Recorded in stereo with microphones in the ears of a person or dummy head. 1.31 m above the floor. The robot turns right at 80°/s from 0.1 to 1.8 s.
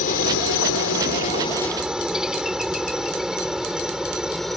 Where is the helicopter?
45° left (ahead or behind); by 4.6 s centre (ahead or behind).